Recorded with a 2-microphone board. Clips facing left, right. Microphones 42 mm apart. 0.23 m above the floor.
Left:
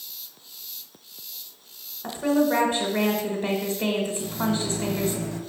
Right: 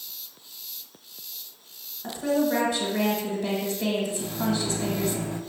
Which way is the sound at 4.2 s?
20° right (ahead or behind).